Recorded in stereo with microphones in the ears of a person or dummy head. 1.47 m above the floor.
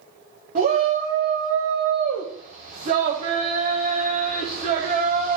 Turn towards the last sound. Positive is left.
turn(degrees=-40)  # may be behind; listen again after turning